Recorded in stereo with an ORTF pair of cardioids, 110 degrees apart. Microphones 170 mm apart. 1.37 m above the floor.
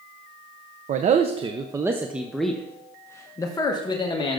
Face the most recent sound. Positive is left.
turn(degrees=30)